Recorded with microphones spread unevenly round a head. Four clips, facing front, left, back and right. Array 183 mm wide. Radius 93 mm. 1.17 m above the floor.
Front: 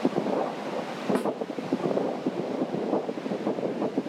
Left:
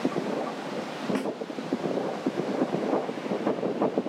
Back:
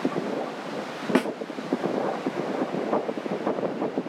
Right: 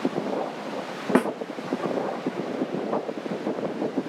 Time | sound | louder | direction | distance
1.1 | a snare drum | right 10 dB, back 5 dB | 120° right | 0.5 m